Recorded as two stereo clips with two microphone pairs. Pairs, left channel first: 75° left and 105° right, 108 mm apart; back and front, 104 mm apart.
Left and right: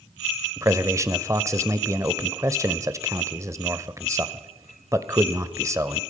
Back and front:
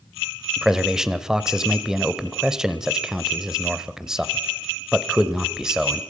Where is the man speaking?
80° right, 1.2 m.